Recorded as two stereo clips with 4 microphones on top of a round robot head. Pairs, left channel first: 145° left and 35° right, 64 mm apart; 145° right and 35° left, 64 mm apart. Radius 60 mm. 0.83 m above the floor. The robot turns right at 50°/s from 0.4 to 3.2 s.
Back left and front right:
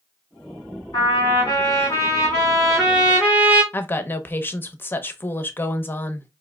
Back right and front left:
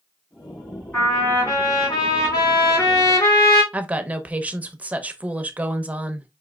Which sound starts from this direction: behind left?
A trumpet, at 0.9 s.